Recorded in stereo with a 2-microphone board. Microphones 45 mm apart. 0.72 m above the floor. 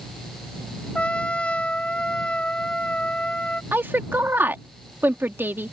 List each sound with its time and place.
0.9 s a trumpet: 25° left (ahead or behind)
3.7 s a woman speaking: 50° right (ahead or behind)